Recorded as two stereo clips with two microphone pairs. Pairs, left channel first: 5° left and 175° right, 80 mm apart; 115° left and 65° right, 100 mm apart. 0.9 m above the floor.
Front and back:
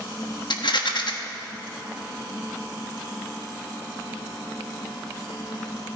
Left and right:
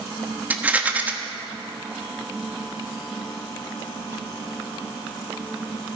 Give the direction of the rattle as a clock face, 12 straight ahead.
12 o'clock.